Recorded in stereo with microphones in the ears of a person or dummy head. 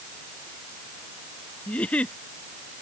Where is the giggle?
5° left (ahead or behind).